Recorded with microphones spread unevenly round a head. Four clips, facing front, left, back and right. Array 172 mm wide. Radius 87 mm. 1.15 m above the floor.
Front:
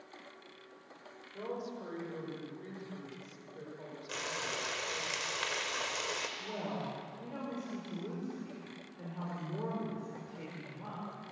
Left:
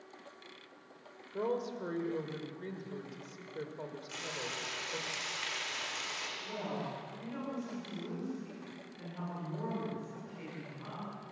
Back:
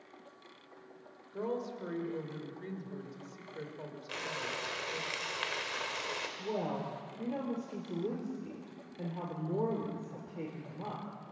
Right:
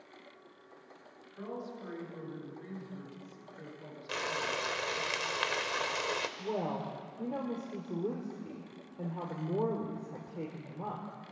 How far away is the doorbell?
No doorbell in this recording.